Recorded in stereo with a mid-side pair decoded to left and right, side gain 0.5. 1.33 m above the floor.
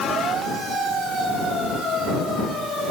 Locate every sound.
Only background noise.